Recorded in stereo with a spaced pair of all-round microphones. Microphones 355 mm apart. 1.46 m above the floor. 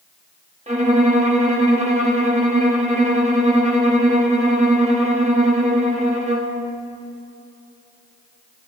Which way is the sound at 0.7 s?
20° right (ahead or behind).